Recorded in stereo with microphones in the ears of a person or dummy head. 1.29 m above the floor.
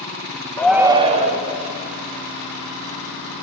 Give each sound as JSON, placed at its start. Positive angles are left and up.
{"t": 0.6, "sound": "a shout", "side_deg": 15, "distance_m": 0.5}